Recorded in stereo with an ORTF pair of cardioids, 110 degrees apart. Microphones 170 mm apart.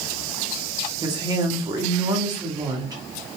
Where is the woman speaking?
25° right, 0.9 m.